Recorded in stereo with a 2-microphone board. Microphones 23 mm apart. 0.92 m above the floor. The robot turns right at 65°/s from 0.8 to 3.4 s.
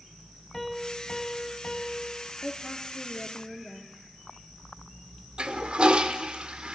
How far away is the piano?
About 2.0 m.